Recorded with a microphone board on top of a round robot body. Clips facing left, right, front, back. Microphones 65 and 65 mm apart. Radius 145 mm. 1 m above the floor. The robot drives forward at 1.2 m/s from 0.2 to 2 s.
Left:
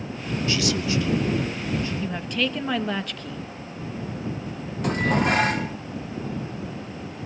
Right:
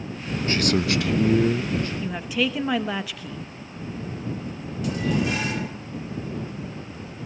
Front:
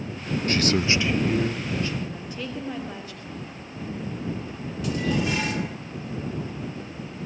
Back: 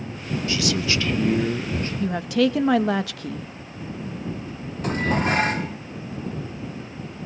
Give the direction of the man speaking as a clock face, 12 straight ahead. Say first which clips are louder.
Right 3 dB, front 2 dB; 1 o'clock.